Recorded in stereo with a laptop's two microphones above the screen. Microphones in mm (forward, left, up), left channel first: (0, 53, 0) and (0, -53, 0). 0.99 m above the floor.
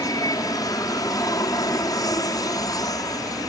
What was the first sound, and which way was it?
An aircraft, 35° left (ahead or behind).